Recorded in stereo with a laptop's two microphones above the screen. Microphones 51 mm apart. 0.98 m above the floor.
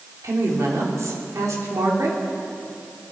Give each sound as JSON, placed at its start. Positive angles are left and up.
{"t": 0.2, "sound": "a woman speaking", "side_deg": -75, "distance_m": 2.5}